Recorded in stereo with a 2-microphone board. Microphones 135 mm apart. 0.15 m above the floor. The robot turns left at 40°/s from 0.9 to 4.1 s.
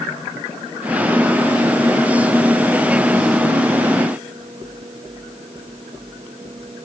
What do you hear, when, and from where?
Only background noise.